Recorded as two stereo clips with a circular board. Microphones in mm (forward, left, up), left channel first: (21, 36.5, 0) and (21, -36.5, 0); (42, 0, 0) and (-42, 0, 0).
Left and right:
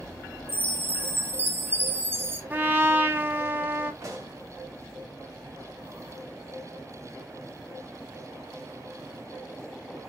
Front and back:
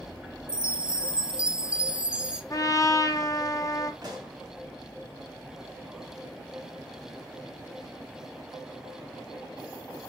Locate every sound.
0.5 s a chime: 115° right, 0.6 m
2.5 s a trumpet: 35° right, 0.9 m
4.0 s a pop: 140° right, 1.8 m